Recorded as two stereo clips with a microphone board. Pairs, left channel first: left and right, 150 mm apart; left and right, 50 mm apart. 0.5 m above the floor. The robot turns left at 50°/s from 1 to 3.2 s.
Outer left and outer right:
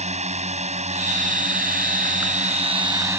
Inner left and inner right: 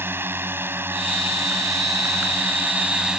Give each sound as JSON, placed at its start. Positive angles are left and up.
{"t": 0.0, "sound": "a drone", "azimuth_deg": -55}